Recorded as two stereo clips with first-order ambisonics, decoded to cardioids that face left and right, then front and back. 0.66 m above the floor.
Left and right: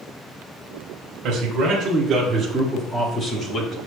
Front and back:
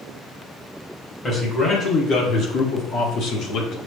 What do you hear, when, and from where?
1.2 s a man speaking: 55° right, 1.2 m; by 3.8 s 35° left, 1.4 m